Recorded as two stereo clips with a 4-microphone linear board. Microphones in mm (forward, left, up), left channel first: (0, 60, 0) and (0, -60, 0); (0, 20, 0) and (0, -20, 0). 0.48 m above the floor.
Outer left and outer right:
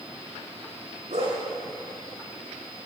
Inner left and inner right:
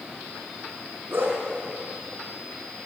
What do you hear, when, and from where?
1.1 s a dog barking: 60° right (ahead or behind), 7 m